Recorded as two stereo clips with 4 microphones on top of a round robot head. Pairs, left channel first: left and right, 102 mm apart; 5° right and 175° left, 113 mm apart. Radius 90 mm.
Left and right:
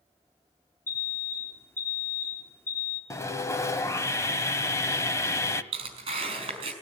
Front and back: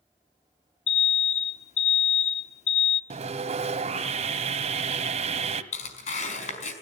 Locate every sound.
0.9 s an alarm: 20° left, 1.3 m
3.1 s sawing: 150° left, 1.4 m
5.7 s tearing paper: 40° right, 4 m